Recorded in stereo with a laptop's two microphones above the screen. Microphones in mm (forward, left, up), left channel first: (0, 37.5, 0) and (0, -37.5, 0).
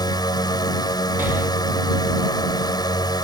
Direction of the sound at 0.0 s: 70° left (ahead or behind).